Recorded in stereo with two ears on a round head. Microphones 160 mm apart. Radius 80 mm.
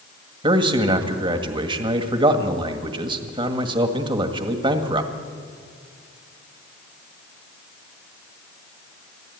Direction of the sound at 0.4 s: 30° right (ahead or behind).